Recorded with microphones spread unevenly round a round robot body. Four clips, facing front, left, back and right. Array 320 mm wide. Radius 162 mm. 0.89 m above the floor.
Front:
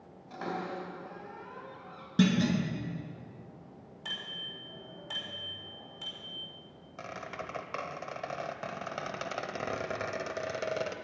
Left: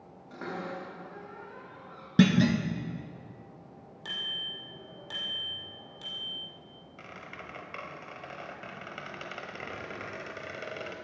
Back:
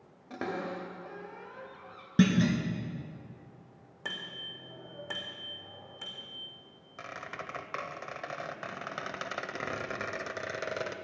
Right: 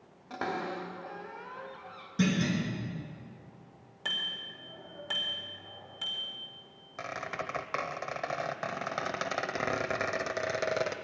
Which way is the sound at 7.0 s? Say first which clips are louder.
Right 9 dB, front 1 dB; 80° right.